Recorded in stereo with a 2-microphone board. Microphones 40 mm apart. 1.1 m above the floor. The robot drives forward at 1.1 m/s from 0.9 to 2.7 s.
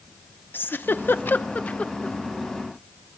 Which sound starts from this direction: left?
A giggle, at 0.5 s.